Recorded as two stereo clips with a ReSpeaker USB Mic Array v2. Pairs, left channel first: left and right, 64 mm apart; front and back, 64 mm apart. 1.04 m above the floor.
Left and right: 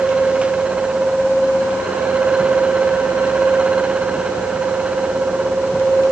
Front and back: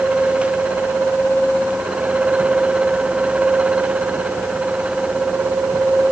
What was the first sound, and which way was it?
Only background noise.